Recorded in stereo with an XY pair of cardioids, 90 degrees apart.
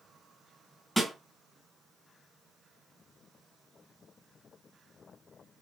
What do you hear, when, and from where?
1.0 s a snare drum: straight ahead, 1.9 m